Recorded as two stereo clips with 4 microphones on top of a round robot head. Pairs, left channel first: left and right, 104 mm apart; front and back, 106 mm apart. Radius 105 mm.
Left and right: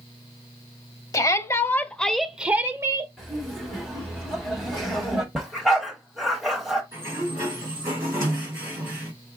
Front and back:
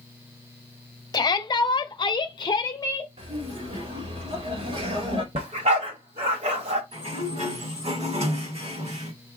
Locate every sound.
1.1 s a shout: 45° left, 0.9 m; by 3.1 s 45° right, 0.8 m
3.2 s laughter: straight behind, 3 m
5.3 s a dog barking: straight behind, 0.9 m
6.9 s a sliding door: 155° right, 2.5 m